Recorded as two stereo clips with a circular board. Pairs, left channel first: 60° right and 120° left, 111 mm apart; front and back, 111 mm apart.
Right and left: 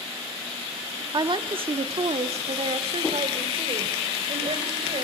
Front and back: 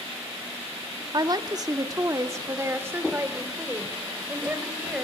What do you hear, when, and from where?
1.1 s a woman speaking: 150° left, 1.0 m; by 5.0 s 105° left, 3 m